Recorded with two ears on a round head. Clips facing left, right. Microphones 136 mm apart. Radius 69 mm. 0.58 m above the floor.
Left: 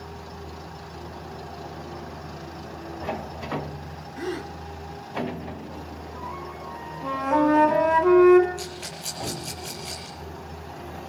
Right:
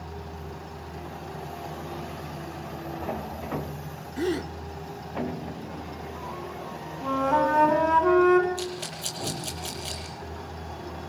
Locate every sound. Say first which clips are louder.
4.2 s a gasp: right 4 dB; 30° right (ahead or behind), 1.4 m
7.0 s a flute: left 2 dB; 5° left (ahead or behind), 2.5 m
8.6 s a rattle: right 3 dB; 40° right (ahead or behind), 8.5 m